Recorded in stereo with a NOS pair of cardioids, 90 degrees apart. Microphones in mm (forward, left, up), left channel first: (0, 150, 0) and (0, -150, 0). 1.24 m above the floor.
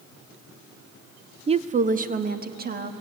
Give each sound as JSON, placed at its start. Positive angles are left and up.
{"t": 1.5, "sound": "a woman speaking", "azimuth_deg": -20, "distance_m": 0.7}